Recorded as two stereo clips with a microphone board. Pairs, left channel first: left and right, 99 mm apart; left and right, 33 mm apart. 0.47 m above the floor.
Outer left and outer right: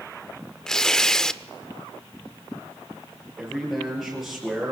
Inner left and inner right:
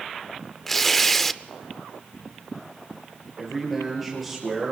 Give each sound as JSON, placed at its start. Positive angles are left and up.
{"t": 0.7, "sound": "tearing paper", "side_deg": 5, "distance_m": 0.5}
{"t": 3.4, "sound": "a man speaking", "side_deg": 0, "distance_m": 9.0}